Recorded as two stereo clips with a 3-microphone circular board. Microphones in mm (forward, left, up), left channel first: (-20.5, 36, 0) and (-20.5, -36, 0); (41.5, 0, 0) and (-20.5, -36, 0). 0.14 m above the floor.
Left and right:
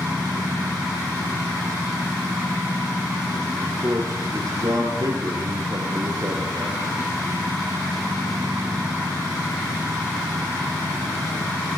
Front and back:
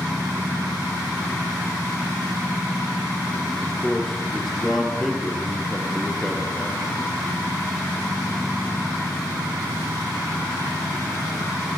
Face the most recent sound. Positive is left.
turn(degrees=-60)